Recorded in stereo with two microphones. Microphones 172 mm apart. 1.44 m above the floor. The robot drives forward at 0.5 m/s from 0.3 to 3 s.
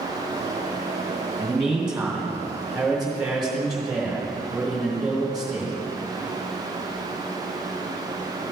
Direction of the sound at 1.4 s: 5° right (ahead or behind).